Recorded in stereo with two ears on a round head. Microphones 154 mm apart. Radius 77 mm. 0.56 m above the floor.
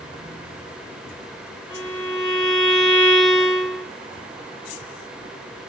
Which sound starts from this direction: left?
A violin, at 1.7 s.